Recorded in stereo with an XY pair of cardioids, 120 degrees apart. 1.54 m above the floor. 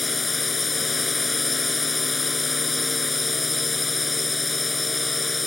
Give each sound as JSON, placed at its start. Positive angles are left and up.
{"t": 0.0, "sound": "a drone", "azimuth_deg": 20}